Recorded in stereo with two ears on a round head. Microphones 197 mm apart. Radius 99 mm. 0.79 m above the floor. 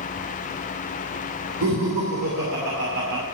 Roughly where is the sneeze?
I don't hear a sneeze.